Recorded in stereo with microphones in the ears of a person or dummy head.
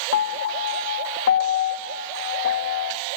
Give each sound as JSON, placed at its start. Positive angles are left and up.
{"t": 0.1, "sound": "a piano", "side_deg": 65, "distance_m": 1.2}